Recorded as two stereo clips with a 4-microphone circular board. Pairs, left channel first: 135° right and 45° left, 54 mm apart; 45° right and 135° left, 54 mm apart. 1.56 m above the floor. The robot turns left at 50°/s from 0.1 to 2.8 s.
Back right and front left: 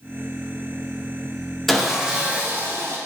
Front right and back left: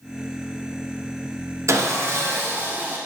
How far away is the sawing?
About 0.6 m.